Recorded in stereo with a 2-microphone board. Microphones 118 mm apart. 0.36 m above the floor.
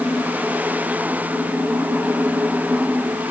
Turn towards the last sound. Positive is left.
No sound to turn to.